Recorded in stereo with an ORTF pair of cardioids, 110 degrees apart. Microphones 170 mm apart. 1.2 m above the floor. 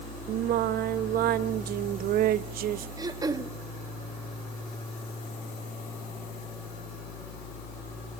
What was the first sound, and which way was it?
Singing, 65° right.